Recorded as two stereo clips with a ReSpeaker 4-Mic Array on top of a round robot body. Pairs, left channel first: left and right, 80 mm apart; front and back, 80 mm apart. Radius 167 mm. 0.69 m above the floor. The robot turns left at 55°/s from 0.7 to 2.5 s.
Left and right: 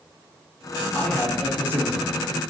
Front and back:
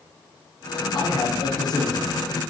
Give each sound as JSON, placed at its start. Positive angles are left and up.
{"t": 0.9, "sound": "a man speaking", "azimuth_deg": 20, "distance_m": 0.9}